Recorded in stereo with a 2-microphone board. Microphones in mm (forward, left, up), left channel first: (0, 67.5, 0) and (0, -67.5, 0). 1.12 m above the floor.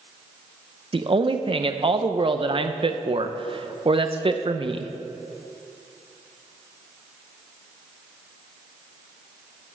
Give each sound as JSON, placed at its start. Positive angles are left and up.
{"t": 0.9, "sound": "a man speaking", "side_deg": -45, "distance_m": 0.8}